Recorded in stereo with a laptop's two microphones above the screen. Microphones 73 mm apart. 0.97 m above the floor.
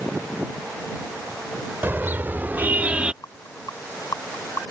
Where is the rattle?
55° left (ahead or behind).